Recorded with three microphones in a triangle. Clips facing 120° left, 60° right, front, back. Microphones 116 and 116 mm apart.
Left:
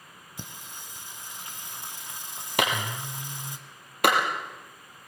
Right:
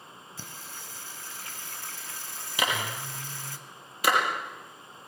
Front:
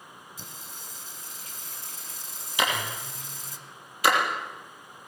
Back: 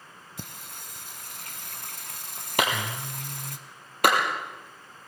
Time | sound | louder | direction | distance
0.4 | singing | left 3 dB, back 2 dB | 170° right | 1.6 m
2.6 | a clap | left 3 dB, back 1 dB | 150° left | 5.5 m